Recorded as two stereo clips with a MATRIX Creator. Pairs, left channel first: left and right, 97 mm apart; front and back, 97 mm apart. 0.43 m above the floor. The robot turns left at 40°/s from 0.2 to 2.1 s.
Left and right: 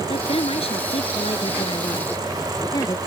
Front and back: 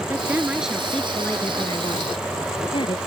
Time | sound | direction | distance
0.1 | a woman speaking | 115° left | ?